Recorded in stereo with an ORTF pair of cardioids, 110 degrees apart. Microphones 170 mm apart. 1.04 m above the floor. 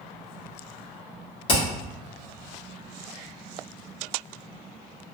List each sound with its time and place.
1.5 s hammering: 30° left, 1.5 m